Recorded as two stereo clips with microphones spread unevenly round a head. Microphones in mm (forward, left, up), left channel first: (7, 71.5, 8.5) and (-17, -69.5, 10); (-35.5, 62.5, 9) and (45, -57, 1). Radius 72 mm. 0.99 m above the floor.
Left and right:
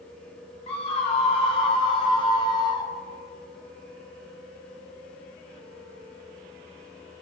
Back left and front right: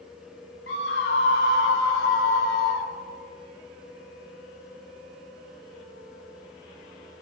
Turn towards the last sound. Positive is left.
turn(degrees=145)